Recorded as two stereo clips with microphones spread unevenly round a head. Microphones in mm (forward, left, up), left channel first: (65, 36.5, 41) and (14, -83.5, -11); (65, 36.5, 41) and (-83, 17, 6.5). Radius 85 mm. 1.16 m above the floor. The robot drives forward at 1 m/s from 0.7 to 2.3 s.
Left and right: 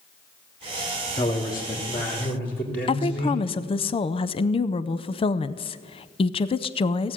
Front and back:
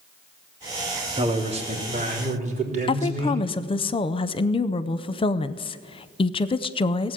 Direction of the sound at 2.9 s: 30° left.